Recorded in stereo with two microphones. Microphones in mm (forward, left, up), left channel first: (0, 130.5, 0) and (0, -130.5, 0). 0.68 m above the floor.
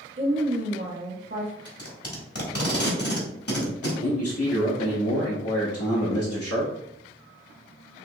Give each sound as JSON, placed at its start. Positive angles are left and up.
{"t": 0.2, "sound": "a woman speaking", "side_deg": -45, "distance_m": 1.4}
{"t": 1.6, "sound": "tape being pulled", "side_deg": 60, "distance_m": 1.3}
{"t": 4.0, "sound": "a man speaking", "side_deg": 60, "distance_m": 1.0}